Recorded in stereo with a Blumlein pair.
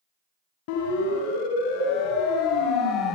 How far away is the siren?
About 8 m.